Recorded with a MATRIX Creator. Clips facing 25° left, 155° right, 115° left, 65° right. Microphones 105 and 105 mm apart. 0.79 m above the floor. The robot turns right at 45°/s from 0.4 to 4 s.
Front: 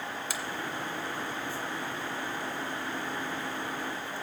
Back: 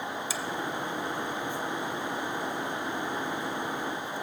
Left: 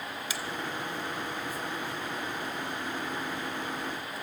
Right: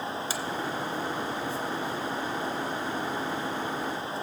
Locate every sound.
0.3 s a finger snap: 15° right, 0.9 m; by 0.4 s 10° right, 0.9 m